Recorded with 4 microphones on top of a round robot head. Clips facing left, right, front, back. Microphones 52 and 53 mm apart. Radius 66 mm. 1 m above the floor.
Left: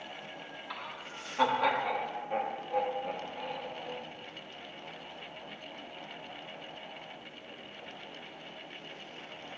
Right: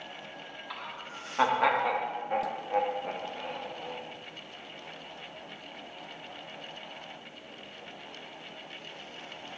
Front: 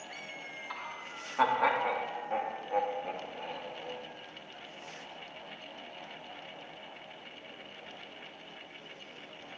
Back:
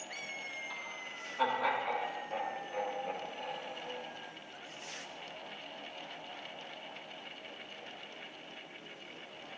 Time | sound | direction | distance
0.7 | laughter | 5° left | 0.8 m